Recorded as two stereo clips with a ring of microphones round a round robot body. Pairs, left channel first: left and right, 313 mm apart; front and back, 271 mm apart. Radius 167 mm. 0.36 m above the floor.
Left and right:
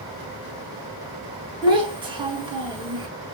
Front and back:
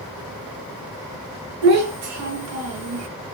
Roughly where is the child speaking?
Behind.